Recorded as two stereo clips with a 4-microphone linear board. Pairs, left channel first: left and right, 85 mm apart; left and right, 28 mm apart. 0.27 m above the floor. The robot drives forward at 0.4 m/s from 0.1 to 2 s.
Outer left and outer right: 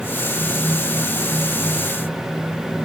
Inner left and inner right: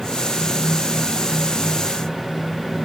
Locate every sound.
Only background noise.